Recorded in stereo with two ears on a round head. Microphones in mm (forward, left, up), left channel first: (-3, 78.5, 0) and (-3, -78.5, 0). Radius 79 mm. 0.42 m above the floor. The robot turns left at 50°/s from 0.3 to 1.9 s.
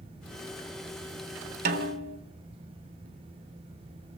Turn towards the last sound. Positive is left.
turn(degrees=-65)  # may be behind; listen again after turning